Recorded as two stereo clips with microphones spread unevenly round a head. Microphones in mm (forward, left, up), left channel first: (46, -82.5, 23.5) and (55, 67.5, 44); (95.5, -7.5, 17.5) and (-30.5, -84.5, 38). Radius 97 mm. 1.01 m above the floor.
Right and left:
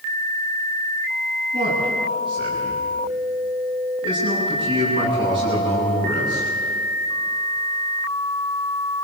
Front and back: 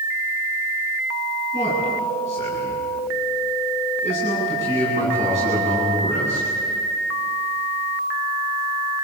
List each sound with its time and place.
1.5 s a man speaking: 150° left, 9.5 m